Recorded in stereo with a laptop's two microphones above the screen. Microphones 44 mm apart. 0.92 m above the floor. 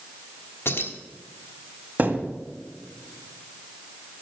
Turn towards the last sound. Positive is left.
turn(degrees=-40)  # may be behind; listen again after turning